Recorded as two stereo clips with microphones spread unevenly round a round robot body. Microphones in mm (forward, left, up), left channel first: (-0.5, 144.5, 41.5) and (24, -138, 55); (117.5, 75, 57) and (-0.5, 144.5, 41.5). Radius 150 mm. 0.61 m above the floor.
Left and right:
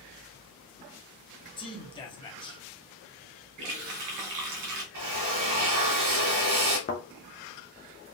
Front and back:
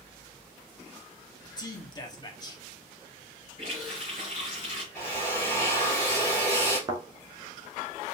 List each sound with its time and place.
1.6 s a man speaking: 30° left, 1.3 m
3.6 s a running tap: 90° right, 1.9 m
4.9 s a drill: 120° right, 2.5 m
6.9 s a thud: 135° left, 0.6 m